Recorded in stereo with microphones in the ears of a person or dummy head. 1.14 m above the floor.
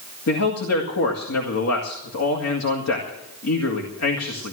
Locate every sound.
0.3 s a man speaking: 80° left, 2 m